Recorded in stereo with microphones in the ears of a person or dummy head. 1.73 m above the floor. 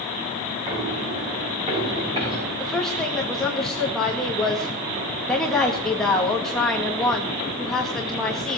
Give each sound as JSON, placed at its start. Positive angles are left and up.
{"t": 0.7, "sound": "footsteps", "side_deg": -30, "distance_m": 6.5}
{"t": 2.6, "sound": "a woman speaking", "side_deg": 0, "distance_m": 2.0}